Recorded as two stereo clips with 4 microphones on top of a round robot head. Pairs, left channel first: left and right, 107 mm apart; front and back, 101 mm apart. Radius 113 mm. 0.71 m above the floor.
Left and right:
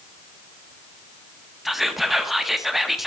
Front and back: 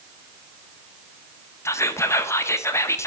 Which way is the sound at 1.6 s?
5° right.